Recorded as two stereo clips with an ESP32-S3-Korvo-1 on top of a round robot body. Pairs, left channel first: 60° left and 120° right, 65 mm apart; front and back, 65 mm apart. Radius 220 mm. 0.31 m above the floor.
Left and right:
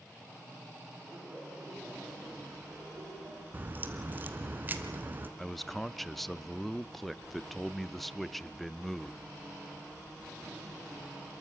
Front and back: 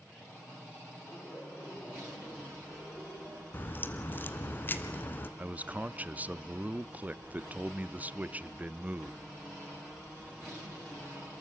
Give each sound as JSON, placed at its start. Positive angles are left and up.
{"t": 1.1, "sound": "laughter", "azimuth_deg": -55, "distance_m": 5.5}
{"t": 3.5, "sound": "a crack", "azimuth_deg": -60, "distance_m": 1.3}
{"t": 5.4, "sound": "a man speaking", "azimuth_deg": 145, "distance_m": 1.0}